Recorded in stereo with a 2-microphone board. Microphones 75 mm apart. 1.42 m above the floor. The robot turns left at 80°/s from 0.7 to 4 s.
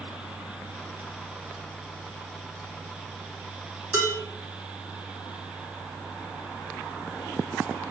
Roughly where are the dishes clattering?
Right.